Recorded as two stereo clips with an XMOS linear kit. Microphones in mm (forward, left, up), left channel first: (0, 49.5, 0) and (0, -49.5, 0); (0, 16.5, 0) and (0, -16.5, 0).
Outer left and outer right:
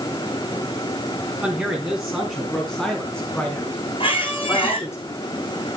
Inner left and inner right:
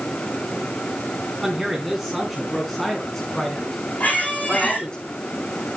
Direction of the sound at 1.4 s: 5° right (ahead or behind).